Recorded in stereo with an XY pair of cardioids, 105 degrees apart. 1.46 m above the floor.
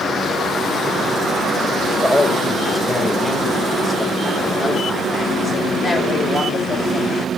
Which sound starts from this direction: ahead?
A man speaking, at 2.0 s.